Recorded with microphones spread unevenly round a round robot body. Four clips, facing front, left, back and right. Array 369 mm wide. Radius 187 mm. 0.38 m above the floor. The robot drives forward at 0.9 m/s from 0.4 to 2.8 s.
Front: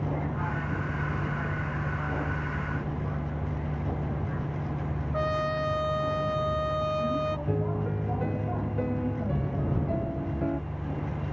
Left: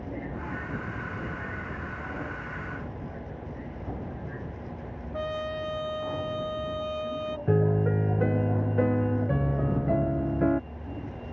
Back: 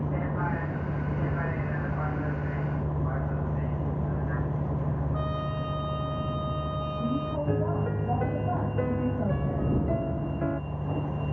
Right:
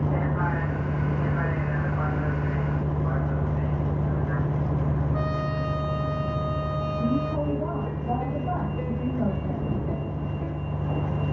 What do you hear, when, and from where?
0.0 s a vehicle: 95° right; by 11.3 s 100° right
5.1 s a trumpet: straight ahead
7.5 s a piano: 85° left